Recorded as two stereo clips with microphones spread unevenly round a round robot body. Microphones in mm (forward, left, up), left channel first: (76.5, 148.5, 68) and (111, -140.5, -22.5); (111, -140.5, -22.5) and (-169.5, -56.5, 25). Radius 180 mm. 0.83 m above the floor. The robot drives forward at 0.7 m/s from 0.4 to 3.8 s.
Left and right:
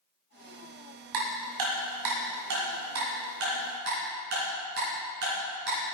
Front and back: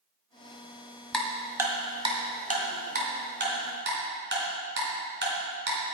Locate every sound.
1.1 s ticking: 110° right, 1.7 m; by 5.8 s 145° right, 3 m